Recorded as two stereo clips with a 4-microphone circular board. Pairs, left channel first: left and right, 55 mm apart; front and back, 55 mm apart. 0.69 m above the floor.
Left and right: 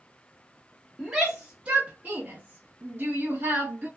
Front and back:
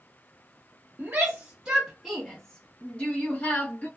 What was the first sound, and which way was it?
A shout, 160° right.